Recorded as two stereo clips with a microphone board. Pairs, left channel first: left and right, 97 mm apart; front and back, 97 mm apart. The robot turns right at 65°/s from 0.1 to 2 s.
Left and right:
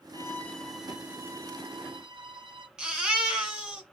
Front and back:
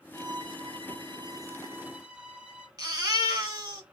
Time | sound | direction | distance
0.1 | a violin | 135° left | 0.7 m
2.8 | a baby crying | 170° right | 1.2 m